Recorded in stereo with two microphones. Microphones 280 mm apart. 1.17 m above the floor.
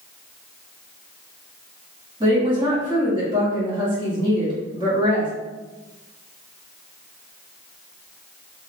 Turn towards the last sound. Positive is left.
turn(degrees=-15)  # may be behind; listen again after turning